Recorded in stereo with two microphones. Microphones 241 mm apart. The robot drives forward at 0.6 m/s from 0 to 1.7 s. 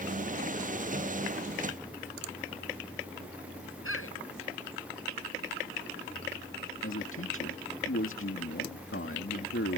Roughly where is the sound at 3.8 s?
Left.